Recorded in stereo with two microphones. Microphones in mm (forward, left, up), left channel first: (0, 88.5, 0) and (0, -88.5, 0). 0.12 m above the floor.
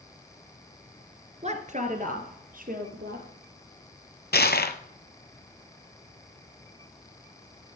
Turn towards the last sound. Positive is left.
turn(degrees=65)  # may be behind; listen again after turning